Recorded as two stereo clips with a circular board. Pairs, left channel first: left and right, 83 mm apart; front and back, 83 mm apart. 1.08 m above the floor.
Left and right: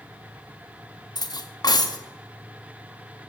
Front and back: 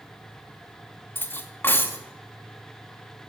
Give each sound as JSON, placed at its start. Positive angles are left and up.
{"t": 1.1, "sound": "cutlery clinking", "azimuth_deg": 60, "distance_m": 0.7}